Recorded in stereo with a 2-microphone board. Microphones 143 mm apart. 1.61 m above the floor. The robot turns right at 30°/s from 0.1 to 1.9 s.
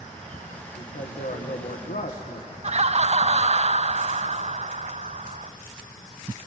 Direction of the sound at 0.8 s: 70° left.